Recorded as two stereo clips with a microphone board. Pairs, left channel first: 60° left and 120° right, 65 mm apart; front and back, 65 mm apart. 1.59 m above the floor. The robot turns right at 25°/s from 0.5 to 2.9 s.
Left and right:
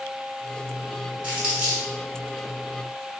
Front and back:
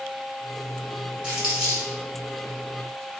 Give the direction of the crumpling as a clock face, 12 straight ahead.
5 o'clock.